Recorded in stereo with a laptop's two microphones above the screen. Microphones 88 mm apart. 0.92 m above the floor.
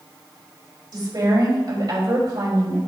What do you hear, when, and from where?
0.9 s a woman speaking: 55° right (ahead or behind), 5 m